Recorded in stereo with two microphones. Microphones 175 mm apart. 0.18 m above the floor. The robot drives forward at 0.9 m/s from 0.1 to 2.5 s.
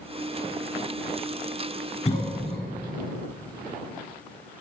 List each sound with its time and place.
2.0 s a cough: 40° left (ahead or behind), 2 m; by 2.6 s 35° left (ahead or behind), 2.5 m